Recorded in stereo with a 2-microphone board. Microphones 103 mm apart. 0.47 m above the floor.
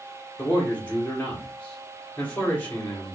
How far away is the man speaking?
About 1.2 m.